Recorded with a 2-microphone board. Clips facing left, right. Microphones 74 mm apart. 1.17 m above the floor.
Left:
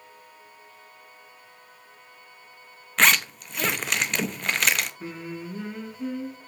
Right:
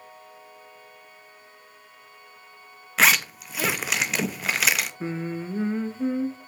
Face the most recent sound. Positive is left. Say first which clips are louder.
# right 5 dB
turn(degrees=-30)  # may be behind; listen again after turning